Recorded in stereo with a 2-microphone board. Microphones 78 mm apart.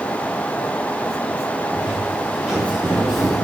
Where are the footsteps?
15° right (ahead or behind), 4.5 m; by 3.5 s centre (ahead or behind), 5 m.